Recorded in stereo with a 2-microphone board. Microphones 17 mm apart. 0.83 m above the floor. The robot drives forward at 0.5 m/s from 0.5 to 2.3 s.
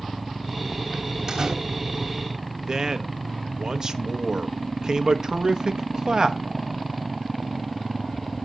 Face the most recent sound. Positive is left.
turn(degrees=-45)  # may be behind; listen again after turning